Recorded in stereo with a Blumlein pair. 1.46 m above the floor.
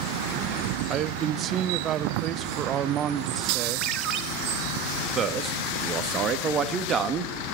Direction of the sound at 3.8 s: 30° right.